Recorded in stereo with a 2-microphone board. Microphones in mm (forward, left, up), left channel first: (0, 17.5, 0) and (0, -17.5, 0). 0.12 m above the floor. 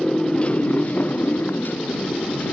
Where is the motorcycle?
20° left (ahead or behind); by 2.5 s 75° left (ahead or behind).